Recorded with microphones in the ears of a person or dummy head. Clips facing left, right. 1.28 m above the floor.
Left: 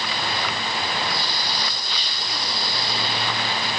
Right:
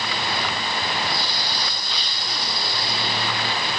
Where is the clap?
No clap in this recording.